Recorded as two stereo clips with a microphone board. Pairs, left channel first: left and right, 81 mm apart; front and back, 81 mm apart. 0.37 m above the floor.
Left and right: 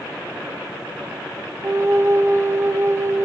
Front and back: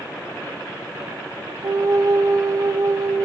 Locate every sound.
1.6 s a flute: 145° right, 0.6 m